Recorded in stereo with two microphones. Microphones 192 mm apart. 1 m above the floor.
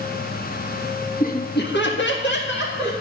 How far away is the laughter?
About 1.2 m.